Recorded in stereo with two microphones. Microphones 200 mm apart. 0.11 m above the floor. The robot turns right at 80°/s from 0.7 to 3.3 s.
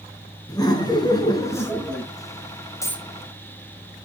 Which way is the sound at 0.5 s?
20° left (ahead or behind).